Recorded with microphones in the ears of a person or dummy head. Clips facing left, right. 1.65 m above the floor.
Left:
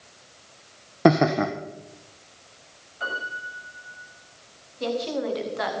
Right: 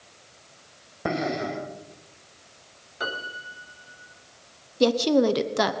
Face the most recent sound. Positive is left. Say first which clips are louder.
# right 8 dB
turn(degrees=-60)  # may be behind; listen again after turning